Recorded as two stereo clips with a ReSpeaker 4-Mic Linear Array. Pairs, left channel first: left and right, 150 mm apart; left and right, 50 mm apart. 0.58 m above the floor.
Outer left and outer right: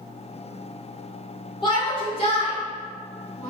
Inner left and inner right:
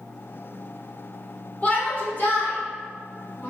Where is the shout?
30° left (ahead or behind), 1.5 m; by 3.5 s 55° left (ahead or behind), 1.7 m.